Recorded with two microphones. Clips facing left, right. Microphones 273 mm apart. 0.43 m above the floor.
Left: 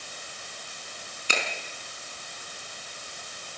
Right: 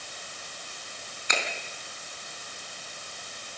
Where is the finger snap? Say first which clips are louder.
Left 1 dB; 35° left (ahead or behind), 4 m.